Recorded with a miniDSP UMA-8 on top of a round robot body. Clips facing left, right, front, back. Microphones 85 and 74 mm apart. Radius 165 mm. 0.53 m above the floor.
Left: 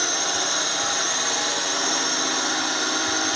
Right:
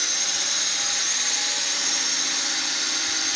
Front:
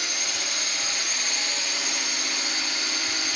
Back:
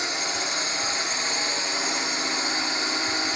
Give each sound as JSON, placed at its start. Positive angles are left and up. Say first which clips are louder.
{"t": 0.0, "sound": "a drone", "louder": "left 8 dB, back 4 dB", "azimuth_deg": 125}